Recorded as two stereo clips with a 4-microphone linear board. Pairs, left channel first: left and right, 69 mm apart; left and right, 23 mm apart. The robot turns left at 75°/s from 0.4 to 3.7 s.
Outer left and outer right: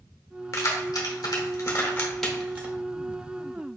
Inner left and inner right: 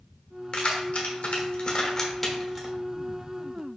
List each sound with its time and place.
0.5 s keys jangling: 40° left (ahead or behind), 1.0 m; by 2.7 s 25° right (ahead or behind), 1.0 m